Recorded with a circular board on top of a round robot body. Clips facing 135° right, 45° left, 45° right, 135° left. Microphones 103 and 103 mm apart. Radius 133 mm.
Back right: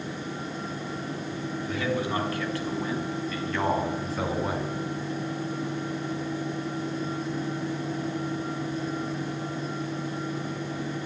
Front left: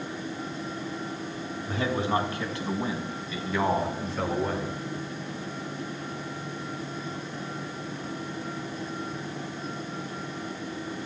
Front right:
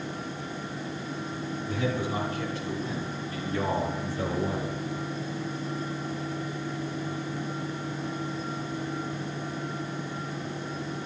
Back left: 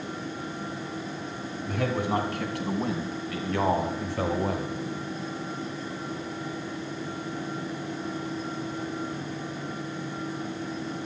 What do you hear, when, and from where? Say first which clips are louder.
1.7 s a man speaking: front left 2 dB, back left 3 dB; 105° left, 5 m; by 4.7 s 150° left, 4 m